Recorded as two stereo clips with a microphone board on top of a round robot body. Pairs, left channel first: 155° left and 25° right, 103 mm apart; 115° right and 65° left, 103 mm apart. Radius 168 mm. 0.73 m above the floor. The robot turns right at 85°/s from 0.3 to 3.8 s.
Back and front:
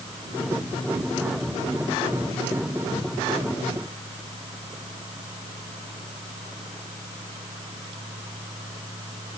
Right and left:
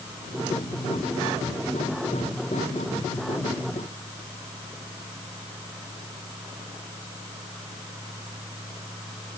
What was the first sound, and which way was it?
Only background noise.